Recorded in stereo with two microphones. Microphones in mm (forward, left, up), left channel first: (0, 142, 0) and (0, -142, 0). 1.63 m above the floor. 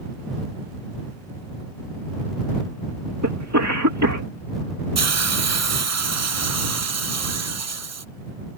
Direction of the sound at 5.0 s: 70° right (ahead or behind).